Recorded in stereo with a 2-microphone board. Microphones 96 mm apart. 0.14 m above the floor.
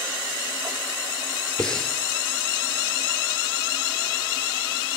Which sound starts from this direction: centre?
Breathing, at 1.6 s.